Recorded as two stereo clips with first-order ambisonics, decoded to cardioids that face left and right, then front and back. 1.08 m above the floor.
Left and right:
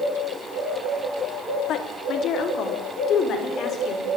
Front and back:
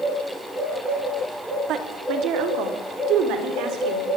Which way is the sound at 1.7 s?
135° left.